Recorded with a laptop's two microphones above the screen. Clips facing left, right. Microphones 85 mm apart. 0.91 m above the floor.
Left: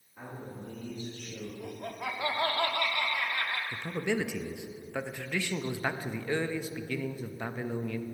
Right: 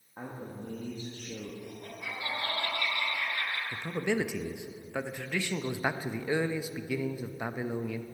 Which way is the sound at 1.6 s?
65° left (ahead or behind).